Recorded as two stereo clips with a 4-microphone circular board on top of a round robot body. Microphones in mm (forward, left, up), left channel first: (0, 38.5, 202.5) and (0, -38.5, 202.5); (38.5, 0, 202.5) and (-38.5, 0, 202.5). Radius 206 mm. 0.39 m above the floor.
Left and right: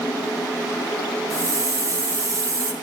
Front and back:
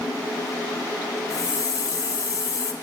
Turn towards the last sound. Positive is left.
turn(degrees=-45)